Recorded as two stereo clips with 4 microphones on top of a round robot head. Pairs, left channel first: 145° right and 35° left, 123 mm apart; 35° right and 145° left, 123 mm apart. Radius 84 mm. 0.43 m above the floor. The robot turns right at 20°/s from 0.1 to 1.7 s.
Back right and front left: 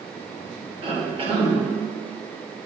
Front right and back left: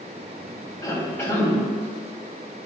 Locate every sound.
0.8 s a cough: 20° left, 1.8 m; by 1.6 s 35° left, 1.8 m